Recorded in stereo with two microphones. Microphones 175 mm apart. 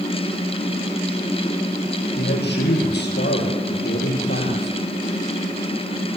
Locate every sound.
2.2 s a man speaking: 75° left (ahead or behind), 5.5 m